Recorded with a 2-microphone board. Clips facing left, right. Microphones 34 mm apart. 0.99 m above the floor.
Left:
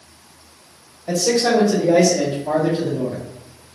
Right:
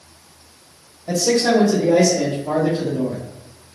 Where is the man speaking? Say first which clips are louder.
Even; 35° left (ahead or behind), 1.2 m; by 3.2 s 25° left (ahead or behind), 1.1 m.